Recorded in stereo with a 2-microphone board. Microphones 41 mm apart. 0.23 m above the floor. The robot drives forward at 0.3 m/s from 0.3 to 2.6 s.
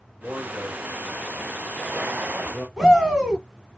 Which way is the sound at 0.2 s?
20° right (ahead or behind).